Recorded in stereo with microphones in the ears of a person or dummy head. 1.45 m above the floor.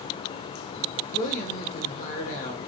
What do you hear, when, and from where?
1.1 s a woman speaking: 50° left (ahead or behind), 1.4 m